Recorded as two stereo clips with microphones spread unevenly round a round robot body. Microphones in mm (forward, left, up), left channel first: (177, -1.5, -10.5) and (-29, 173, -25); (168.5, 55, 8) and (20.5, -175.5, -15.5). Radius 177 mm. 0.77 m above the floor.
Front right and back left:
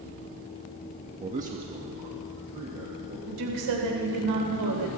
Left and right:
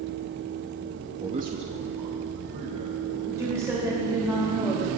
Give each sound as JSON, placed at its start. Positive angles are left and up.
{"t": 1.2, "sound": "a man speaking", "azimuth_deg": 180, "distance_m": 0.8}
{"t": 3.3, "sound": "a woman speaking", "azimuth_deg": 155, "distance_m": 3.5}